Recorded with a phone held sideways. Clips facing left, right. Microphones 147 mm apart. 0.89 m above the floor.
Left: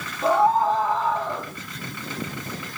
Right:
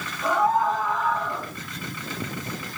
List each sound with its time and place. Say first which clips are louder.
0.2 s a scream: left 3 dB; 35° left (ahead or behind), 3.5 m